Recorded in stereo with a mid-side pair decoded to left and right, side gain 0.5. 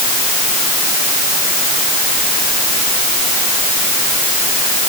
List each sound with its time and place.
Only background noise.